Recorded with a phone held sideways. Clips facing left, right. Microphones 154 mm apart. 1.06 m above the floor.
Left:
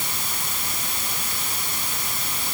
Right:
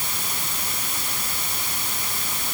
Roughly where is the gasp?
I don't hear a gasp.